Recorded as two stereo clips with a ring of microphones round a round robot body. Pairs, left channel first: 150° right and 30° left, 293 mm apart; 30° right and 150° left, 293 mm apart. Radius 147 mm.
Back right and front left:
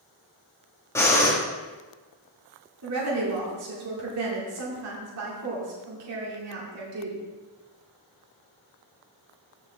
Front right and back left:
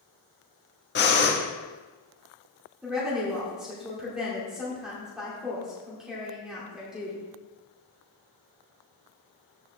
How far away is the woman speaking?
About 2.5 m.